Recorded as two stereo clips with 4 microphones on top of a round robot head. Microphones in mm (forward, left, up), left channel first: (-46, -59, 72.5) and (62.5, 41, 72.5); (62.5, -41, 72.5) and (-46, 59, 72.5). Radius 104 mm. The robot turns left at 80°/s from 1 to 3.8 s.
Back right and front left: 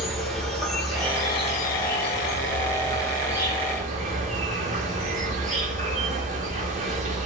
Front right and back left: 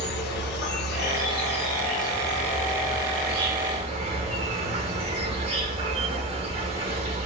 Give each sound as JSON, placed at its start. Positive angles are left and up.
{"t": 0.0, "sound": "an insect", "azimuth_deg": -50, "distance_m": 0.9}